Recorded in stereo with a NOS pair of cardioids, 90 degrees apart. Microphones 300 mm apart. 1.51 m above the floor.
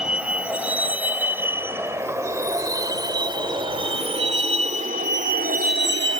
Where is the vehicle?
5° right; by 6.2 s 40° right.